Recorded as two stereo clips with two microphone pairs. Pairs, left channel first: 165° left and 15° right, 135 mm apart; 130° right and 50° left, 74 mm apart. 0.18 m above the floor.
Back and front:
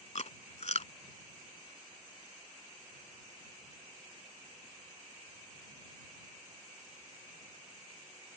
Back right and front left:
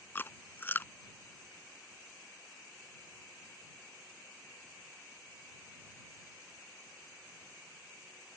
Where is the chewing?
170° left.